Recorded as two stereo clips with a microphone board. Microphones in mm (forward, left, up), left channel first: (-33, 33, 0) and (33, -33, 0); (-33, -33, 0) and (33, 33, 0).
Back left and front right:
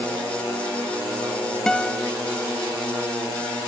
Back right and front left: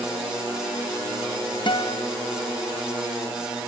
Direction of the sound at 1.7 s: 145° right.